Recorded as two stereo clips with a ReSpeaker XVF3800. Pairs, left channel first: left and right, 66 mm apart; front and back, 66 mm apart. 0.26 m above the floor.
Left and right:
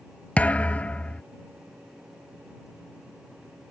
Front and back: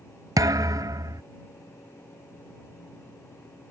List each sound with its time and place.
0.4 s a thud: 155° left